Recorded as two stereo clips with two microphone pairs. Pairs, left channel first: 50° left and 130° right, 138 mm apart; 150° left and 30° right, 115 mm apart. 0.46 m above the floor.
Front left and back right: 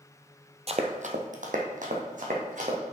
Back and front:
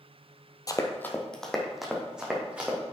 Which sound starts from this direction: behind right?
Running footsteps, at 0.7 s.